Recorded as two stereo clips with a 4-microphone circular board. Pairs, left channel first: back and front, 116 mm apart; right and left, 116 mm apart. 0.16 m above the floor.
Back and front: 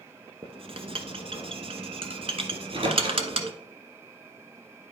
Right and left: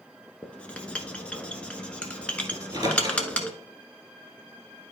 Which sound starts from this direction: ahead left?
A microwave, at 2.5 s.